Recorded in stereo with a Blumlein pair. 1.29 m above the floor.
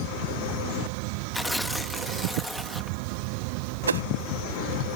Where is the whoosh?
70° right.